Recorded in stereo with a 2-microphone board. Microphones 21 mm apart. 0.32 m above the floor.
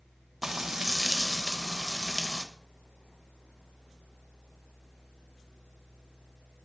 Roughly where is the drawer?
No drawer in this recording.